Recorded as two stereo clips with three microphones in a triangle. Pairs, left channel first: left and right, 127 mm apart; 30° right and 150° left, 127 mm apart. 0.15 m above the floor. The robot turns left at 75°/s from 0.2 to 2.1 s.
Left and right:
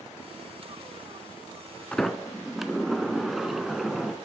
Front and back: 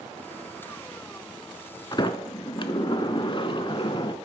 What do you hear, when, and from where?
1.9 s a sliding door: 10° left, 0.5 m; by 4.2 s straight ahead, 0.5 m